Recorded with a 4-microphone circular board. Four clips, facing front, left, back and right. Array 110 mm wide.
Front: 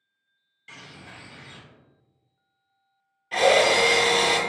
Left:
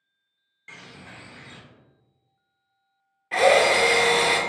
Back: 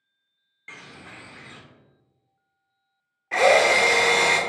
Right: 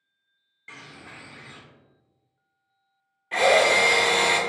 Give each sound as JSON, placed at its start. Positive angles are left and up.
{"t": 0.7, "sound": "a bird", "azimuth_deg": -175, "distance_m": 0.7}
{"t": 3.3, "sound": "a drill", "azimuth_deg": 160, "distance_m": 0.6}